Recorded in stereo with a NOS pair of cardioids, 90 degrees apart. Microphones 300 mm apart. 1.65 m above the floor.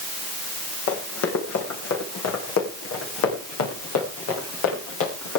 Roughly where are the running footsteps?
Ahead left.